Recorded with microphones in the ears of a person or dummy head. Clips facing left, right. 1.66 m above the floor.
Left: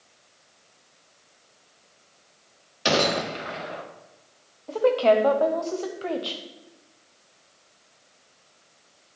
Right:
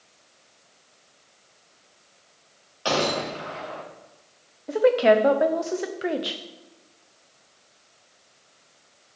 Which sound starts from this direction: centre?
A woman speaking, at 4.7 s.